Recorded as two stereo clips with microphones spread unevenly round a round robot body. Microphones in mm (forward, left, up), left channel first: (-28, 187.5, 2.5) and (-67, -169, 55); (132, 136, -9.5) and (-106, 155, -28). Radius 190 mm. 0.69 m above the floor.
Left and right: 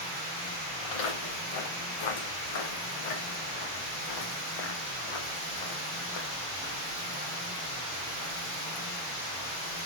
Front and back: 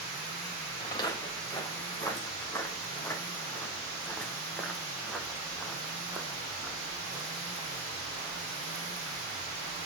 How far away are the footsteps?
About 6 m.